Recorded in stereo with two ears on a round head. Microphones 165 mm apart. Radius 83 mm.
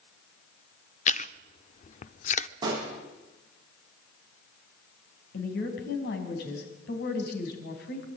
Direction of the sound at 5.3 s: 60° left (ahead or behind).